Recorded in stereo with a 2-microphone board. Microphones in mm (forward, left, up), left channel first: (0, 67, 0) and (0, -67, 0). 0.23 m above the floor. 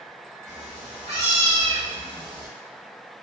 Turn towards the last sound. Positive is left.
turn(degrees=-20)  # may be behind; listen again after turning